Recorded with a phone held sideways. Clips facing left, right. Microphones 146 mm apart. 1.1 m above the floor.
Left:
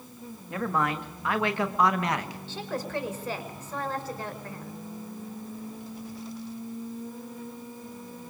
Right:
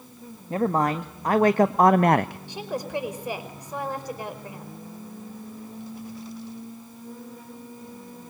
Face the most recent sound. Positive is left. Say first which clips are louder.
# right 2 dB
turn(degrees=-15)  # may be behind; listen again after turning